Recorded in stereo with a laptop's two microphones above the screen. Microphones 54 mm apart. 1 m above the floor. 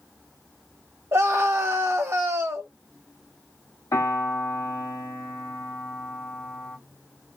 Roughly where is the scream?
Right.